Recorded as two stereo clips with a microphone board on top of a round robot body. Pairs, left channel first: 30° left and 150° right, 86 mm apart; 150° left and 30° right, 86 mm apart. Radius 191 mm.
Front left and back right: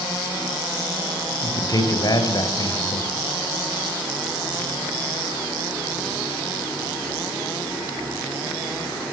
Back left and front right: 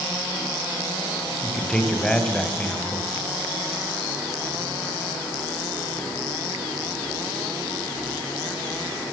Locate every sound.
1.4 s a man speaking: 70° left, 4 m